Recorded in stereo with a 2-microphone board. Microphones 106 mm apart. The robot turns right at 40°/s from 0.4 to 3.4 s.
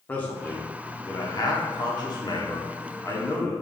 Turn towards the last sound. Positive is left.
turn(degrees=20)  # may be behind; listen again after turning